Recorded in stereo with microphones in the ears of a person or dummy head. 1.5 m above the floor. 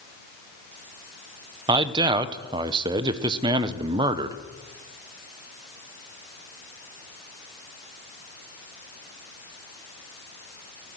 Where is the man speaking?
30° right (ahead or behind), 0.7 m.